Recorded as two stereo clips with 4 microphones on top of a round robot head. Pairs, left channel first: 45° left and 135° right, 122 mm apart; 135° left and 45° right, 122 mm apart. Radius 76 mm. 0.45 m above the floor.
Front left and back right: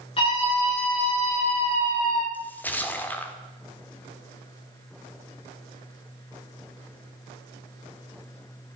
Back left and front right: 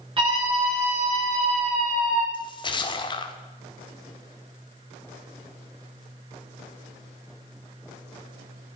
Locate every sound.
0.2 s a scream: straight ahead, 8.5 m; by 2.2 s 5° left, 6.5 m
2.3 s a splash: 115° left, 1.5 m